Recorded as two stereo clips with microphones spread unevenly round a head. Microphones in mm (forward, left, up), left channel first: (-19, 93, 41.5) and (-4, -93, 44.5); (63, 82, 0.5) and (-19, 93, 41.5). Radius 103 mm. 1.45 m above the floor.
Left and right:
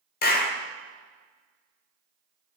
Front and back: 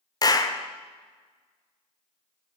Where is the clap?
50° left, 0.6 m.